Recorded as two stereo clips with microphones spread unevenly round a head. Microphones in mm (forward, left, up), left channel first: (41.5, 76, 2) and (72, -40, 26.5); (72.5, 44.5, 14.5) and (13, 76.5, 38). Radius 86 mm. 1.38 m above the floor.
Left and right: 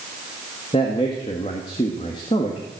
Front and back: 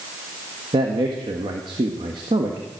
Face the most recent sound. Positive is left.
turn(degrees=170)